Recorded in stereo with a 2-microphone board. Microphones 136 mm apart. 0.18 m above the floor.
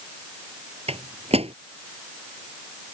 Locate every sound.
0.9 s a microwave: 50° right (ahead or behind)